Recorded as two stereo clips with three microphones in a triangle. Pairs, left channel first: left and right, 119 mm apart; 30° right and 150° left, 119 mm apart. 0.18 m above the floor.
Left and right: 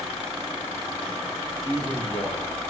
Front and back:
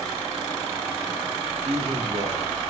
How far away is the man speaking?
About 3.5 m.